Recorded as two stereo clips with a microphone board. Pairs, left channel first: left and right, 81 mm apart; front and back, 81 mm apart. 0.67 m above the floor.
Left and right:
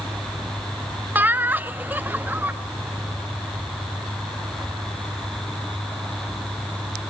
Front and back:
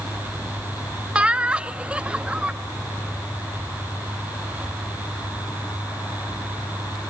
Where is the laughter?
120° right, 0.7 m.